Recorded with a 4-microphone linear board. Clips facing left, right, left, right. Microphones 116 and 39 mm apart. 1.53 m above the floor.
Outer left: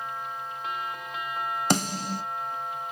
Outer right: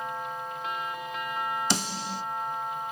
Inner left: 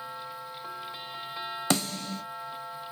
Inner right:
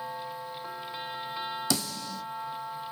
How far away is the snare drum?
About 0.6 m.